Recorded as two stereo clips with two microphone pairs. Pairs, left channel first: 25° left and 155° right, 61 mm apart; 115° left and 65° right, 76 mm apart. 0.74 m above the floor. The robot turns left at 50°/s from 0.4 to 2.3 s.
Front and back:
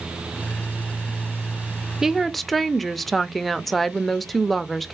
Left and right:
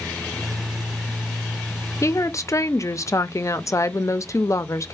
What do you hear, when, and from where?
2.0 s a woman speaking: 130° left, 0.5 m; by 4.9 s 115° left, 0.5 m